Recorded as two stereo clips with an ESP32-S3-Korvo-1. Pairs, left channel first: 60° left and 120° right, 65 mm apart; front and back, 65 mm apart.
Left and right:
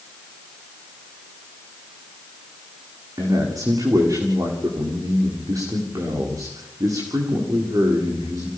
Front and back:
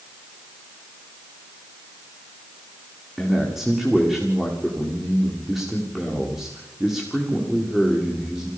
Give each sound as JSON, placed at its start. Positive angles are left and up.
{"t": 3.2, "sound": "a man speaking", "azimuth_deg": -95, "distance_m": 8.0}